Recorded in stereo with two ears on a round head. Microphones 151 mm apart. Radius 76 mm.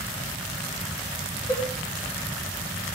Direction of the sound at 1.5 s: 20° left (ahead or behind).